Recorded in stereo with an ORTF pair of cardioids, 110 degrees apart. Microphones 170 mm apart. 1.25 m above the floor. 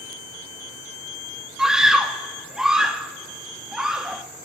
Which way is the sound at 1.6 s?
5° right.